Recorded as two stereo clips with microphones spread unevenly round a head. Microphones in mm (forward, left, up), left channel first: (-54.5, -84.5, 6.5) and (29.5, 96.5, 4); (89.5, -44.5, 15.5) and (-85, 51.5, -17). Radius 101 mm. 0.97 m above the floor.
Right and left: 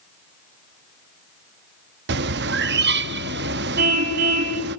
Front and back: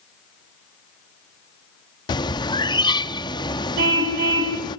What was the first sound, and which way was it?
A bird, 30° left.